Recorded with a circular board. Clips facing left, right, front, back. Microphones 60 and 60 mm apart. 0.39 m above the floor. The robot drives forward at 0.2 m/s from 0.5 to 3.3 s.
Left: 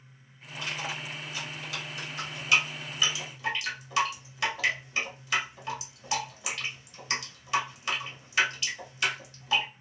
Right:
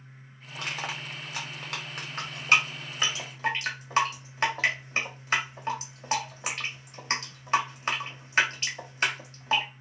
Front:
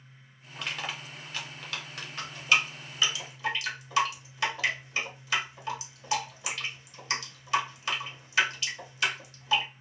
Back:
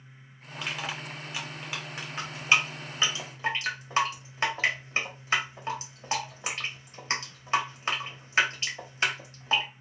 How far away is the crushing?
About 0.8 m.